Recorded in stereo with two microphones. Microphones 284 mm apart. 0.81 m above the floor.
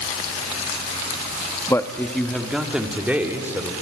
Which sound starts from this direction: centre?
A man speaking, at 1.7 s.